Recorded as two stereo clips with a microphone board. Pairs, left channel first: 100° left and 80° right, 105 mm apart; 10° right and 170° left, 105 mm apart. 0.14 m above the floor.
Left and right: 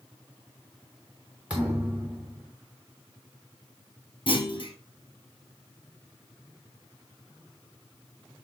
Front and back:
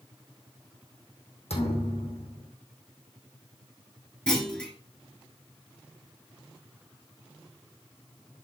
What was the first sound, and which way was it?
A thud, straight ahead.